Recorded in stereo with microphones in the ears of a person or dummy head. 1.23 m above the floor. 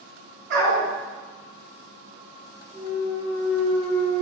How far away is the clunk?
About 2.0 m.